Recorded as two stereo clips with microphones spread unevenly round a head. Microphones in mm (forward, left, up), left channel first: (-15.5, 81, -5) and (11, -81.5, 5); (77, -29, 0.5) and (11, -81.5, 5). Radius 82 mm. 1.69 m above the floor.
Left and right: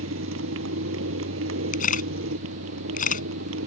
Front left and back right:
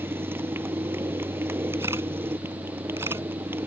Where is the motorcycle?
80° right.